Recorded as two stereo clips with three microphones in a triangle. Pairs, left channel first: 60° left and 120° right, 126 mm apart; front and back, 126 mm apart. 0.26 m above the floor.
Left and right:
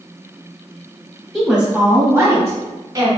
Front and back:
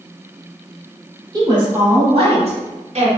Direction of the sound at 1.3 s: 150° left.